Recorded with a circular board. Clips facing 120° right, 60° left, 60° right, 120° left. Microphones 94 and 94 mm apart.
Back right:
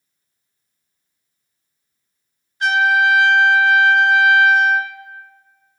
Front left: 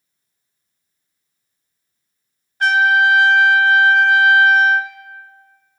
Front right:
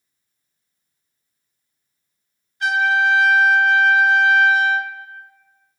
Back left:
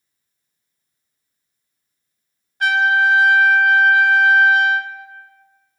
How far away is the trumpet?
About 0.6 m.